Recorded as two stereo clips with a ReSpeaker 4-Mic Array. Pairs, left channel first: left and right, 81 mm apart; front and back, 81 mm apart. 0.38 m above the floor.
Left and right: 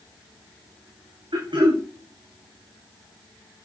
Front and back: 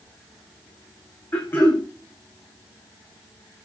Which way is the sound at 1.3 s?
65° right.